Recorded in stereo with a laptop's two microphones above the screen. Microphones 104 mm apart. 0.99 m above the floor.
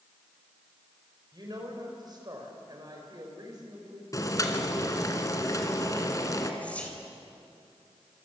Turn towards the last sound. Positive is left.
turn(degrees=10)  # may be behind; listen again after turning